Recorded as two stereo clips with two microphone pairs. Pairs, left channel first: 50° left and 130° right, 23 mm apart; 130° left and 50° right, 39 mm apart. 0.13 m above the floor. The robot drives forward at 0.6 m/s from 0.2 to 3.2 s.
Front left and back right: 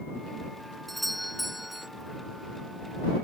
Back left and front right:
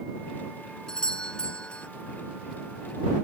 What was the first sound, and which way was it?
A doorbell, 115° left.